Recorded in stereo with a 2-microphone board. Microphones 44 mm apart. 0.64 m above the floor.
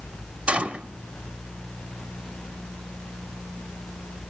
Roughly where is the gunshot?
Right.